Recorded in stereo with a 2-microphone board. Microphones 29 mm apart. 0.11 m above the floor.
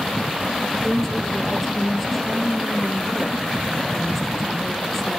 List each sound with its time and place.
0.7 s a woman speaking: 5° left (ahead or behind), 3 m